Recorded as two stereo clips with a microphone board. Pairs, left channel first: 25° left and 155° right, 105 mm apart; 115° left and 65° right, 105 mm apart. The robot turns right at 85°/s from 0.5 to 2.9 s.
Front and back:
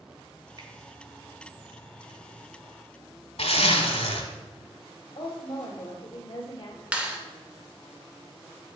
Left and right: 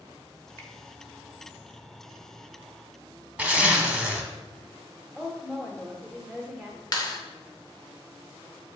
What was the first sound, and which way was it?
A finger snap, 170° left.